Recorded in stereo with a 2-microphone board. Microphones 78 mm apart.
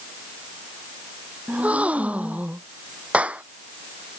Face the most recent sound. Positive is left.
turn(degrees=-15)  # may be behind; listen again after turning